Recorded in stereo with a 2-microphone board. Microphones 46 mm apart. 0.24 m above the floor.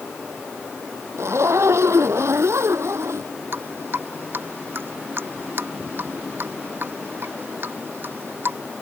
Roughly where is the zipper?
Right.